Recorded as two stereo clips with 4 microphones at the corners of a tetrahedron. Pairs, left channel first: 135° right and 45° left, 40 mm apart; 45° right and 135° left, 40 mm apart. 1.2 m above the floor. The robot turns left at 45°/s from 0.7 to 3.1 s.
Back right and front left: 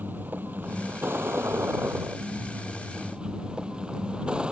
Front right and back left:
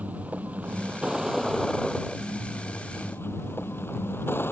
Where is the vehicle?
85° left; by 4.5 s 20° right.